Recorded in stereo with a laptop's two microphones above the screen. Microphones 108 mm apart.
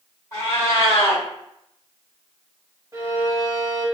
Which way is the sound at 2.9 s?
30° right (ahead or behind).